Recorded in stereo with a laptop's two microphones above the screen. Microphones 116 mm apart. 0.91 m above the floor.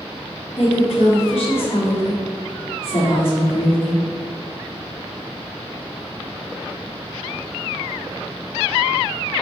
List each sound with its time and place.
0.6 s a woman speaking: 55° left (ahead or behind), 2 m